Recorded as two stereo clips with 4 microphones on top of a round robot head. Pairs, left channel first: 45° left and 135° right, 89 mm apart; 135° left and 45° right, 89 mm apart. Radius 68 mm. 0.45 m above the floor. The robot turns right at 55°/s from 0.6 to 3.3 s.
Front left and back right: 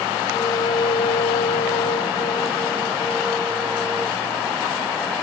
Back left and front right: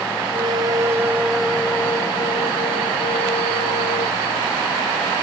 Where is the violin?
Straight ahead; by 4.2 s 145° left.